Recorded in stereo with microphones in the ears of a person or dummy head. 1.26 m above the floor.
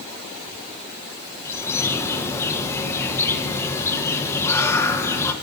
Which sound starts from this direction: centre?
A bird, at 1.4 s.